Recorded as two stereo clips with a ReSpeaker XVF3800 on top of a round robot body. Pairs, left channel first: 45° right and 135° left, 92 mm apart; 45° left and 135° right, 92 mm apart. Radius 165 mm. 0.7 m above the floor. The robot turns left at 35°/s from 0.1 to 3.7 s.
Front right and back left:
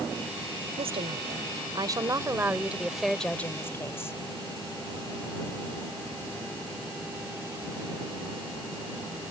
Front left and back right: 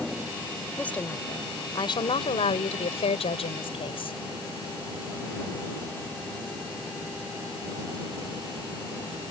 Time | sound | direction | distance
0.8 | a woman speaking | 125° left | ?